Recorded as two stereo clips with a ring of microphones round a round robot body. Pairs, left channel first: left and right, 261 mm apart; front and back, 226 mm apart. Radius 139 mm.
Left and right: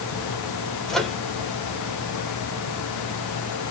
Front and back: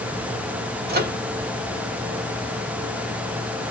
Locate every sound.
0.9 s a microwave: 175° left, 1.5 m